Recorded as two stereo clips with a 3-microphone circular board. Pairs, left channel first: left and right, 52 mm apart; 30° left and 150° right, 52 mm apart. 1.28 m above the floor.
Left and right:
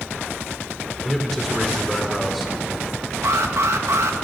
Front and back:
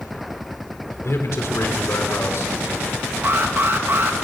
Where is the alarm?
110° right, 1.9 m.